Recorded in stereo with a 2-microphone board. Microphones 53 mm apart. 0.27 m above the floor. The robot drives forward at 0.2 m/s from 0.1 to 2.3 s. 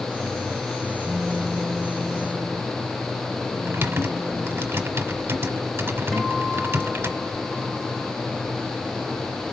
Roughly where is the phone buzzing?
Right.